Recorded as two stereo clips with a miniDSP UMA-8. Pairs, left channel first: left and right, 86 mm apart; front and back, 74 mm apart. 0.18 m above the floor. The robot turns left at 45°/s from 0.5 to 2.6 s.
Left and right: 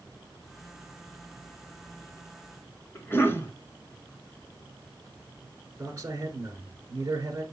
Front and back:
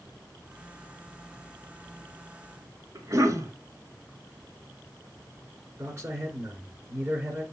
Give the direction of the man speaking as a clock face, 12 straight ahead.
5 o'clock.